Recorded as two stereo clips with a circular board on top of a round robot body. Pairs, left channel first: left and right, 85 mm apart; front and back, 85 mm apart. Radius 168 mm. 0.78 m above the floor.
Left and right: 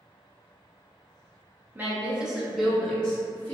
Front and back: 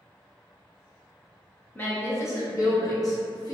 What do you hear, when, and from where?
1.8 s a woman speaking: 45° right, 1.0 m; by 3.5 s 25° left, 1.3 m